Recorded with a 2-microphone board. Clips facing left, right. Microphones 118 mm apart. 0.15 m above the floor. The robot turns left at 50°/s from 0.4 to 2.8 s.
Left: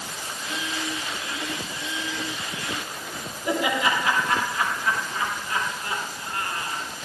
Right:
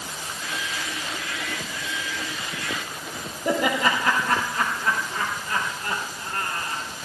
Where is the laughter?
45° right (ahead or behind), 5 m.